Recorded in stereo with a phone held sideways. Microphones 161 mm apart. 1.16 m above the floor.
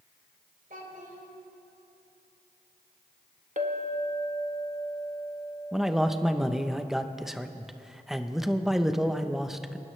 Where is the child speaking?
60° right (ahead or behind), 3 m.